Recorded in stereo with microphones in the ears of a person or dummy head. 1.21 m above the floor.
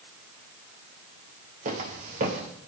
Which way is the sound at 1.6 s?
45° right (ahead or behind).